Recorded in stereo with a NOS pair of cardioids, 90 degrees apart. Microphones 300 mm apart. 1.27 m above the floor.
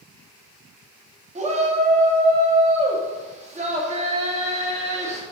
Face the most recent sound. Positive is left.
turn(degrees=-20)